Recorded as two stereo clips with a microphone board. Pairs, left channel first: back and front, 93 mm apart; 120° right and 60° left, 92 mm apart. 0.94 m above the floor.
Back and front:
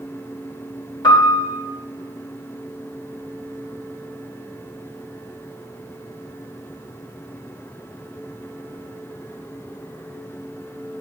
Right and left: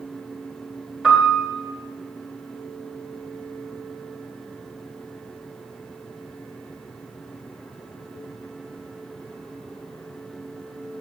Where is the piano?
140° left, 4 m.